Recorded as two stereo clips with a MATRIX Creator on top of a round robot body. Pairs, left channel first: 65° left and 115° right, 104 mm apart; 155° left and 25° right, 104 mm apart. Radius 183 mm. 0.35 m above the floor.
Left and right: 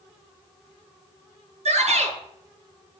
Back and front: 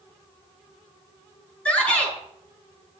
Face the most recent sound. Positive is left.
turn(degrees=-125)